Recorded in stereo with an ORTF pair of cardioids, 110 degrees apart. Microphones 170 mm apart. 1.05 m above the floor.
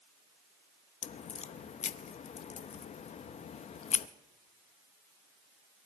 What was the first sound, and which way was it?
A crack, 40° left.